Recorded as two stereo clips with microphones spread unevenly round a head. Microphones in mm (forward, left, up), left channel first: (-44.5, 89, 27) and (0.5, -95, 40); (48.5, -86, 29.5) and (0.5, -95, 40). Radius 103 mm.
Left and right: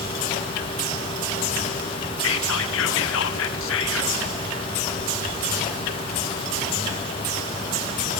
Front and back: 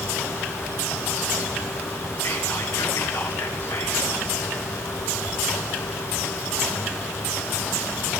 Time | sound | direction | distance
2.2 | whispering | 80° left | 1.3 m